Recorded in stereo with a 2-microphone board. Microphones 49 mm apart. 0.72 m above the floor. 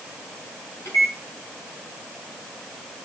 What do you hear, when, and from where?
0.8 s a microwave: 80° left, 5 m